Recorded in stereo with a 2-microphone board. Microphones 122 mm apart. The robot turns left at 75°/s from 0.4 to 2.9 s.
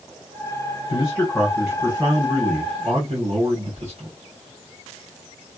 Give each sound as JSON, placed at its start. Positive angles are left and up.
{"t": 0.9, "sound": "a man speaking", "azimuth_deg": 50, "distance_m": 1.7}